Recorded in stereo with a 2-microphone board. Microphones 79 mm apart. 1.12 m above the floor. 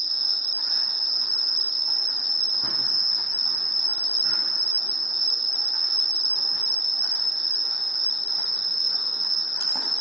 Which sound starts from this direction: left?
An insect, at 0.0 s.